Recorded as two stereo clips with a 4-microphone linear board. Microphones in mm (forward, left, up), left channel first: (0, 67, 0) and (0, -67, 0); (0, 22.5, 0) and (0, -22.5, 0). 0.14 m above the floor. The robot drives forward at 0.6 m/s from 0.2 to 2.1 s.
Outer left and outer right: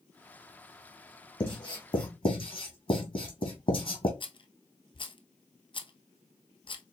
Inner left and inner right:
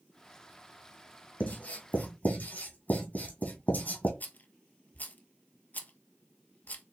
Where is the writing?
35° left (ahead or behind), 2 m; by 4.1 s 45° left (ahead or behind), 1.9 m.